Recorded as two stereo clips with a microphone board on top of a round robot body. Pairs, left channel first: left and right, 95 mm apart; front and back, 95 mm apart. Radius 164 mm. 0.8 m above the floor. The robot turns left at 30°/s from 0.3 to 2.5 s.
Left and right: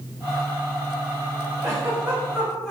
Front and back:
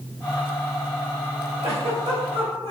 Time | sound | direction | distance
1.6 | a giggle | 155° right | 3 m